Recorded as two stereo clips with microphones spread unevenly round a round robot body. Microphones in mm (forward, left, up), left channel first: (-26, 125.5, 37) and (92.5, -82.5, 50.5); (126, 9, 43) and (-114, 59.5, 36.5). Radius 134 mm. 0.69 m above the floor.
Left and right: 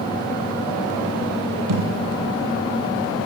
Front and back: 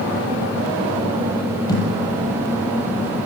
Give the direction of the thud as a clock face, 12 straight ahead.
3 o'clock.